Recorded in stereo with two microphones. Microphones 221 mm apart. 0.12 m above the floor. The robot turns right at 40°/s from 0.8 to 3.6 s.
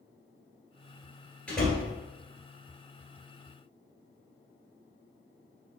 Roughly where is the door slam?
Centre.